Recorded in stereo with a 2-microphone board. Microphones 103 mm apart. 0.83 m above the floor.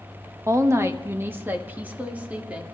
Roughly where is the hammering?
I don't hear hammering.